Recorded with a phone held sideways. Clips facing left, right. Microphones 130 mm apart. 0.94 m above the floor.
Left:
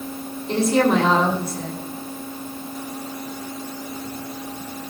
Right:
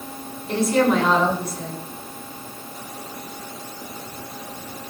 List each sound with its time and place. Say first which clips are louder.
0.5 s a woman speaking: left 1 dB; 25° left (ahead or behind), 9 m